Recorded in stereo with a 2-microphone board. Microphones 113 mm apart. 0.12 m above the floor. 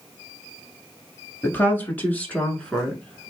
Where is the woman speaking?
20° left (ahead or behind), 1.3 m; by 3.3 s 5° left (ahead or behind), 1.4 m.